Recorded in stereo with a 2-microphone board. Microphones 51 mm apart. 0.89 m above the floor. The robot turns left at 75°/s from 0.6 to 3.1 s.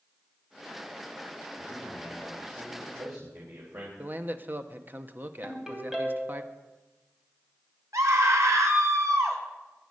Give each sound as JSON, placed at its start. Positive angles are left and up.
{"t": 1.6, "sound": "a man speaking", "azimuth_deg": 35, "distance_m": 3.5}
{"t": 4.0, "sound": "a man speaking", "side_deg": -40, "distance_m": 1.0}
{"t": 5.4, "sound": "a ringtone", "side_deg": -10, "distance_m": 3.5}
{"t": 7.9, "sound": "a scream", "side_deg": -85, "distance_m": 2.5}